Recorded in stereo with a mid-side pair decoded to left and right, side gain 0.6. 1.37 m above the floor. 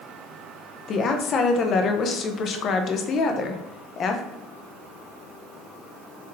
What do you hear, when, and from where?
0.9 s a woman speaking: 50° left, 0.6 m